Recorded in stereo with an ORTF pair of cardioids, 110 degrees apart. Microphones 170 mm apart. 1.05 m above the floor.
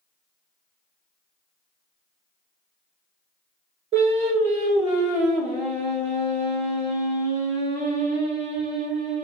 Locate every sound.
3.9 s singing: 45° right, 1.1 m